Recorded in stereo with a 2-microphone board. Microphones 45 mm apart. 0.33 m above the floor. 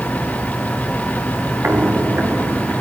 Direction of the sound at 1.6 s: 65° right (ahead or behind).